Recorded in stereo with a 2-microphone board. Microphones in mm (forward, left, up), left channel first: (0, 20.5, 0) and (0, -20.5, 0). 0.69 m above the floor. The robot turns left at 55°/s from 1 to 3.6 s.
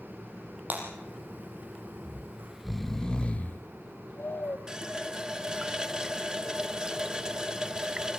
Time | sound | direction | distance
0.7 | breaking glass | 45° right (ahead or behind) | 5 m
2.0 | snoring | 145° right | 0.6 m
4.7 | a running tap | 20° right (ahead or behind) | 0.6 m